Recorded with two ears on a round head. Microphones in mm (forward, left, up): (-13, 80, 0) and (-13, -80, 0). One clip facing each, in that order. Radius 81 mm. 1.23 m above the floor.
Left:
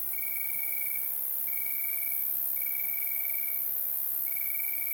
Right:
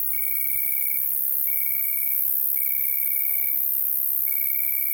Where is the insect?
30° right (ahead or behind), 0.9 m.